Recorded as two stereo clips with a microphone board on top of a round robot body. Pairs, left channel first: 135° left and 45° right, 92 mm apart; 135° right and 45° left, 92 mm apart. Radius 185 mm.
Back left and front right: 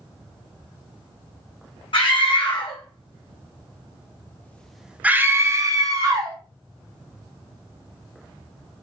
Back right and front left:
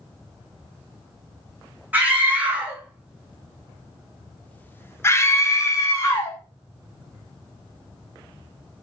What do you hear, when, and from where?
1.9 s a scream: 115° left, 1.9 m; by 6.4 s 80° right, 1.4 m